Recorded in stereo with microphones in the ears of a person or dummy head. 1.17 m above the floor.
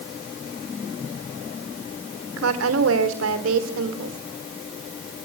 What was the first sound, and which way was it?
A woman speaking, 65° right (ahead or behind).